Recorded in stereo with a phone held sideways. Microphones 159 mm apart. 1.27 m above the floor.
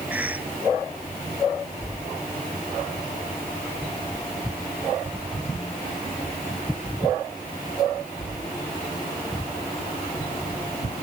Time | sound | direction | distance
0.1 | a cough | 10° right (ahead or behind) | ?